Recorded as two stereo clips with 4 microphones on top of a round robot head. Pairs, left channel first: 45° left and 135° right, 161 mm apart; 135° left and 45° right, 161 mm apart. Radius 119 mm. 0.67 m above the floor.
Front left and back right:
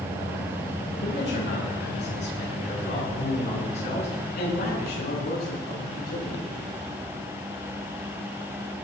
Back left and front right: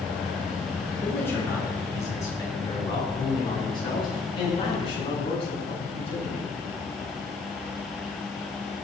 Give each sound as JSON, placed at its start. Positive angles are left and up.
{"t": 1.0, "sound": "a man speaking", "azimuth_deg": 55, "distance_m": 9.0}